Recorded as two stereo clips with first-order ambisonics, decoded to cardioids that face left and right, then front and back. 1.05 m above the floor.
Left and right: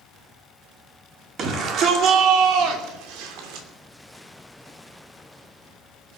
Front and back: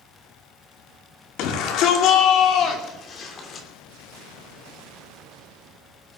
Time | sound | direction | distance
1.4 | a shout | 35° right | 2.5 m